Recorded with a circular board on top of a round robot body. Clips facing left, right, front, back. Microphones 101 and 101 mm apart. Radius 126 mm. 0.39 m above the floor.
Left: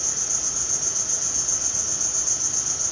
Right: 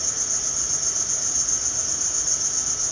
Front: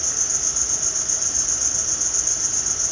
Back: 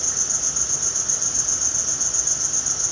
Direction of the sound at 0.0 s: 105° left.